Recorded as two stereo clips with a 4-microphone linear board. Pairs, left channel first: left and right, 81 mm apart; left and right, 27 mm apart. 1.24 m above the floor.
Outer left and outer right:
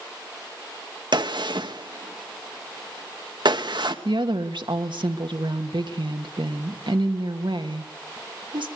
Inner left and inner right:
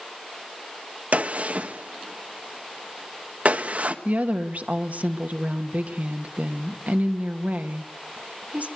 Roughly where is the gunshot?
Right.